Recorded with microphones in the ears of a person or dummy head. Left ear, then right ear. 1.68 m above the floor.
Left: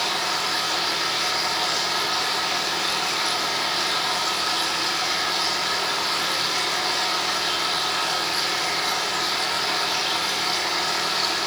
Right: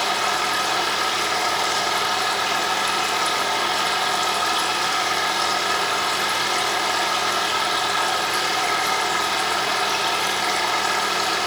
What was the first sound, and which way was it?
A machine running, 40° right (ahead or behind).